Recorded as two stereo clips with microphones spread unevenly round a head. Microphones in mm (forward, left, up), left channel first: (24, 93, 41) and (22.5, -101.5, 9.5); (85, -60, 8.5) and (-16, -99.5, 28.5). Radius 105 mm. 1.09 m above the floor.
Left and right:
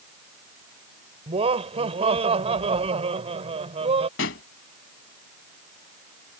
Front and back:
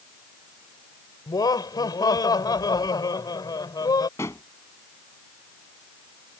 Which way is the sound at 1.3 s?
30° right.